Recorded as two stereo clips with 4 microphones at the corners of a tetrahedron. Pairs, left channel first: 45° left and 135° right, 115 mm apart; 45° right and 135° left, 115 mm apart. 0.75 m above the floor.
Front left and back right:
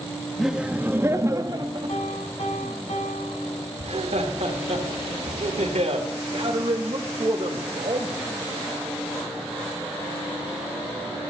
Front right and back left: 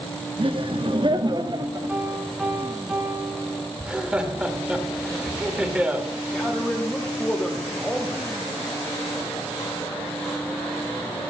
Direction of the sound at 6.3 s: 130° right.